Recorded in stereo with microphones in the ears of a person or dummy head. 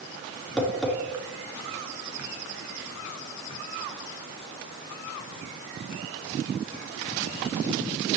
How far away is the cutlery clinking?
No cutlery clinking in this recording.